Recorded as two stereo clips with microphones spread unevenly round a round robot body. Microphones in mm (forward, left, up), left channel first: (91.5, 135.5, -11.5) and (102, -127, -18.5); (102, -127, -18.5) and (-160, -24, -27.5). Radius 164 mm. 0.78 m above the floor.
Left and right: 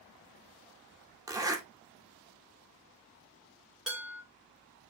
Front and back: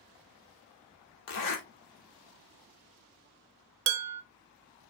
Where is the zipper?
10° right, 0.9 m.